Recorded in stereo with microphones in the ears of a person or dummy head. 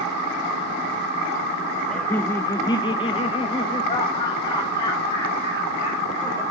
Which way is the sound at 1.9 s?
5° left (ahead or behind).